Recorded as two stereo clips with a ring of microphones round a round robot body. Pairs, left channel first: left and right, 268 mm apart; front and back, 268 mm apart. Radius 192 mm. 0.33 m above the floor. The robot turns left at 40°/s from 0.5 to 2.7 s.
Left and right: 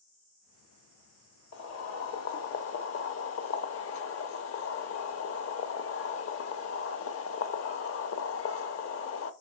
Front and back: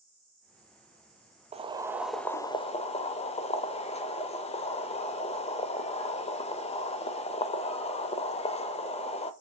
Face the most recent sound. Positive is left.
turn(degrees=65)